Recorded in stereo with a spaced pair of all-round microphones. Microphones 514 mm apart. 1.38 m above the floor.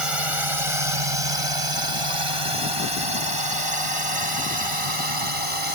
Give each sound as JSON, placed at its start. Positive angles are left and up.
{"t": 0.0, "sound": "a drone", "side_deg": -80}